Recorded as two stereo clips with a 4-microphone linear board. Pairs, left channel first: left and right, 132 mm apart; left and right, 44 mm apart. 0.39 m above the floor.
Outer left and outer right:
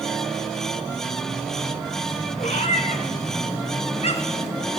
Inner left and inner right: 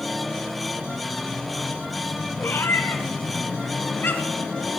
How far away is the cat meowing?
About 2 m.